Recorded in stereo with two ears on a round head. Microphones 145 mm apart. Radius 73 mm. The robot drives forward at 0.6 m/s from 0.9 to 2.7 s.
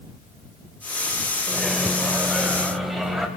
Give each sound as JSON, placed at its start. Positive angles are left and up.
{"t": 1.5, "sound": "a microwave", "side_deg": 0, "distance_m": 1.8}